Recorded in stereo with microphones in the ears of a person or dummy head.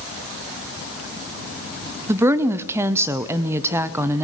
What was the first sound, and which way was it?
A woman speaking, 10° right (ahead or behind).